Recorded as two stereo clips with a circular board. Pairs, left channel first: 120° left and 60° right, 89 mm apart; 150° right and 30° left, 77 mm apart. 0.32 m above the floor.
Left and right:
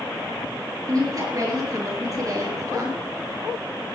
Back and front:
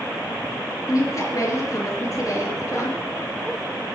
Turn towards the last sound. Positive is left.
turn(degrees=-110)